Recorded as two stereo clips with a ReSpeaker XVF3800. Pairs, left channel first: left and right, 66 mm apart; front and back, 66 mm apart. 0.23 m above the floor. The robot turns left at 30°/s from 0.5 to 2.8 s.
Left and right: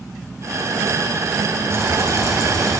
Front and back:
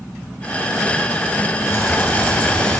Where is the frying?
45° right, 8.5 m; by 2.8 s 80° right, 8.5 m.